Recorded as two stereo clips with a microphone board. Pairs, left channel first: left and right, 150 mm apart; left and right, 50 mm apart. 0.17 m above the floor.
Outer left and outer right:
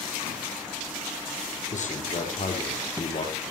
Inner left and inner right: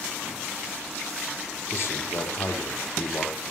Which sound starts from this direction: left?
A man speaking, at 1.7 s.